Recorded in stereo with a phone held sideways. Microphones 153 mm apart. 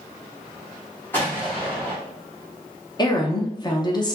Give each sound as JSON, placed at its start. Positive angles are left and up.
{"t": 1.1, "sound": "an explosion", "side_deg": 15, "distance_m": 0.9}
{"t": 3.0, "sound": "a woman speaking", "side_deg": 25, "distance_m": 0.5}